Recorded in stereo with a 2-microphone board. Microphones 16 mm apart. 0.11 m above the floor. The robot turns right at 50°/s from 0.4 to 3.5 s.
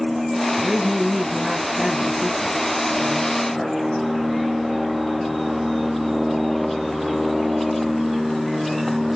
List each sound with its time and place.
0.6 s a woman speaking: 165° right, 2 m; by 3.8 s 20° right, 2 m